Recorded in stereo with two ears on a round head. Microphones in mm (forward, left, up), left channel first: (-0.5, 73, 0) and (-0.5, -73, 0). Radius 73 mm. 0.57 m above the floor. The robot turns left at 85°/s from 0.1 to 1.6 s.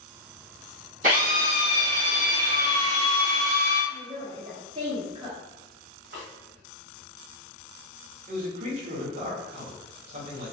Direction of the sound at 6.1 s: 55° right (ahead or behind).